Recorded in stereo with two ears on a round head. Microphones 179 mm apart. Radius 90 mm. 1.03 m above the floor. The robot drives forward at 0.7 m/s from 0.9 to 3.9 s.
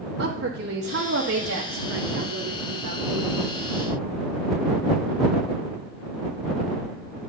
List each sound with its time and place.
0.2 s a woman speaking: 55° right (ahead or behind), 1.4 m; by 3.3 s 50° right (ahead or behind), 1.5 m